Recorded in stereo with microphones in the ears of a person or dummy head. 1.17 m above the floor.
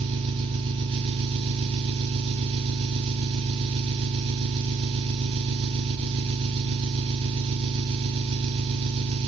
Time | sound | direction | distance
0.0 | an engine running | 30° right (ahead or behind) | 1.7 m